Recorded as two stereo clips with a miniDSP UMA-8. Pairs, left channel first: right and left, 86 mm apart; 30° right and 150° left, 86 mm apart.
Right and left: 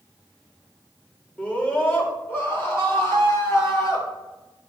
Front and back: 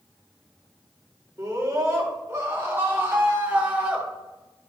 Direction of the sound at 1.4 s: 160° right.